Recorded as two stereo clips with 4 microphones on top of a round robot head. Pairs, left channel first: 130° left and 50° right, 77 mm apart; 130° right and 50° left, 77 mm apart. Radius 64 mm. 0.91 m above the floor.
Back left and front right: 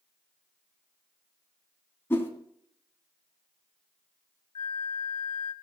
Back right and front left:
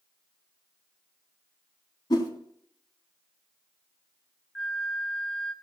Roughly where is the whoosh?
Behind.